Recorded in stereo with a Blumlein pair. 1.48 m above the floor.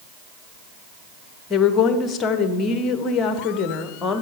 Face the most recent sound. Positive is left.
turn(degrees=25)